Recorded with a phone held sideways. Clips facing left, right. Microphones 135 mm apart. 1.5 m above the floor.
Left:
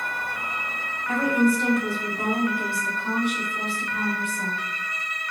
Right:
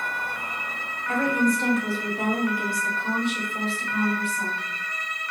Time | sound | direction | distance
1.1 | a woman speaking | 15° left (ahead or behind) | 1.8 m